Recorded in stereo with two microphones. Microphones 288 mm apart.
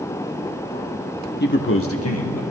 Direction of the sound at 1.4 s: 35° left (ahead or behind).